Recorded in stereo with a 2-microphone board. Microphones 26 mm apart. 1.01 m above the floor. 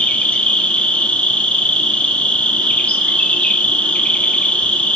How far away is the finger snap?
I don't hear a finger snap.